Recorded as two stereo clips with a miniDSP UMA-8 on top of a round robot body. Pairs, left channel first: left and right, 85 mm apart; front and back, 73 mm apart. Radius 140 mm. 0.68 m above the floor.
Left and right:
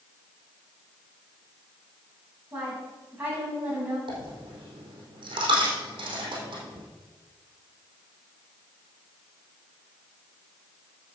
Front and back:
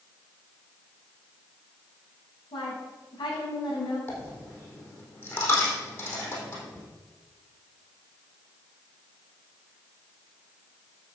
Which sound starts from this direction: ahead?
A woman speaking, at 2.5 s.